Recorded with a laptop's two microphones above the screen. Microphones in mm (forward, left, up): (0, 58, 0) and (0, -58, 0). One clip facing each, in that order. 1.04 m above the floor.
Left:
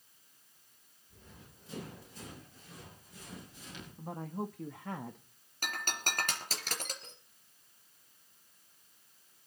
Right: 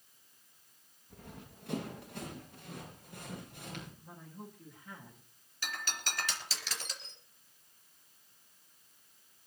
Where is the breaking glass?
50° left (ahead or behind), 3 m.